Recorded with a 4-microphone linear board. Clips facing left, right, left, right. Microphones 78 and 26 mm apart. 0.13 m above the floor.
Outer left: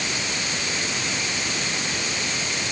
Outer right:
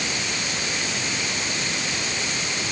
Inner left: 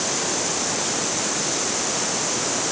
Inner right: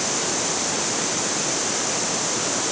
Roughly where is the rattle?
I don't hear a rattle.